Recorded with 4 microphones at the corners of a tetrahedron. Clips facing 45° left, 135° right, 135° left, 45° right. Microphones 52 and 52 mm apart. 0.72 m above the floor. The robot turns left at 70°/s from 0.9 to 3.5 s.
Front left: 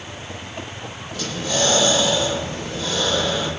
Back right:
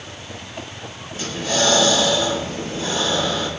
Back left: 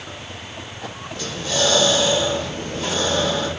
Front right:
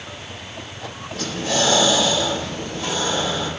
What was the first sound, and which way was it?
Breathing, 75° right.